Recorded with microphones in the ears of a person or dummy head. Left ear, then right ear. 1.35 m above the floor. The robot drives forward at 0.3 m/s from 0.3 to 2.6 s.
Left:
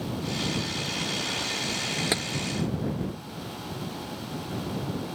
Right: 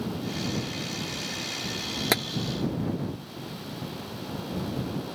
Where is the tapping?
25° right (ahead or behind).